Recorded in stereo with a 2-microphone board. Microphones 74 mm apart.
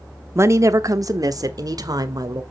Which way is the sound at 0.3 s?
40° right (ahead or behind).